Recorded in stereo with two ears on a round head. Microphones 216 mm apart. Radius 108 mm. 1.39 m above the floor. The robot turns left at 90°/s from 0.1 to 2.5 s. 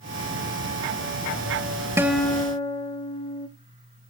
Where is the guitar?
165° right, 0.8 m; by 3.5 s 150° left, 0.8 m.